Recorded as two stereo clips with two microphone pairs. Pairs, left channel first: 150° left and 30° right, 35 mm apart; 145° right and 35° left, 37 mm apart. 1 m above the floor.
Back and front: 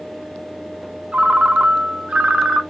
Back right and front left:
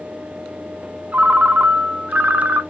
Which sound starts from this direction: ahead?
A ringtone, at 1.1 s.